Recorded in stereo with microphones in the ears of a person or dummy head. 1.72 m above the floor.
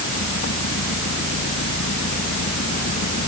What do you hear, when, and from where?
0.0 s an engine running: 45° left (ahead or behind)